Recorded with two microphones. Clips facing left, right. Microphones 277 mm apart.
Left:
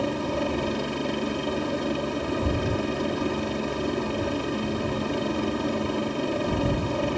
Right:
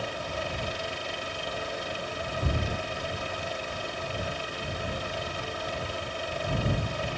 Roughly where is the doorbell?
I don't hear a doorbell.